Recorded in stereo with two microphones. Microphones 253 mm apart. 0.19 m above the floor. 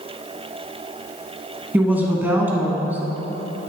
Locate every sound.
1.7 s a woman speaking: 5° right (ahead or behind), 1.4 m